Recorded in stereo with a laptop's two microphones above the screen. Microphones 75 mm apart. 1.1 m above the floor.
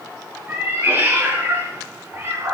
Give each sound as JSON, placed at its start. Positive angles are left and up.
{"t": 0.5, "sound": "a cat meowing", "side_deg": -30, "distance_m": 4.5}